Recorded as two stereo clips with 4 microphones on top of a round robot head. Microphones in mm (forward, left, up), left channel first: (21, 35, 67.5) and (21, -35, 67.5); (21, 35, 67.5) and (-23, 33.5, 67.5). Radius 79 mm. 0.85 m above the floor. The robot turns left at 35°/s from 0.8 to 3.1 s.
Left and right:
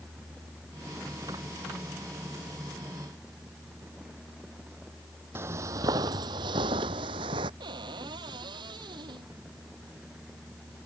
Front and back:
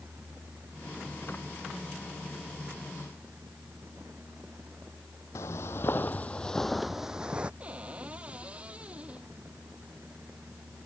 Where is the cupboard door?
110° right.